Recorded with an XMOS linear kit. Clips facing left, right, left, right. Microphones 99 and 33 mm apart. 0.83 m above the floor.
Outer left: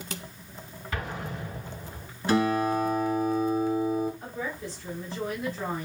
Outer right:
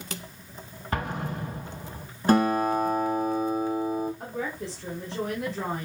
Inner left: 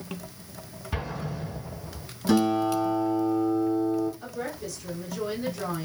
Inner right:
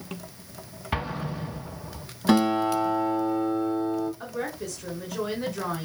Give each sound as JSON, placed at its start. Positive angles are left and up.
{"t": 0.9, "sound": "an explosion", "side_deg": -45, "distance_m": 4.0}
{"t": 2.3, "sound": "a guitar", "side_deg": -45, "distance_m": 3.5}
{"t": 4.2, "sound": "a woman speaking", "side_deg": -80, "distance_m": 3.0}